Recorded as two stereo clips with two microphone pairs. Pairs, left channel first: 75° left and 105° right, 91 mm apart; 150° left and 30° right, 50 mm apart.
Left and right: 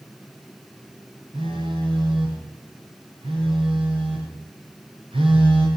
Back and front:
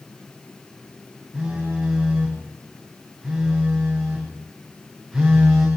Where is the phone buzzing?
120° right, 10 m.